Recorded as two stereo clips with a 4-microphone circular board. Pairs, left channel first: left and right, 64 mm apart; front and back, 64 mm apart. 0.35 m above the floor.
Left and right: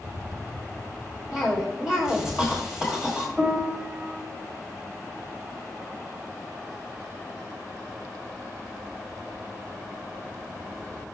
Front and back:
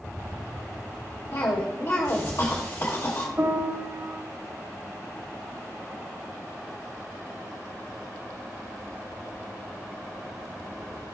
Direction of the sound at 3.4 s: 160° right.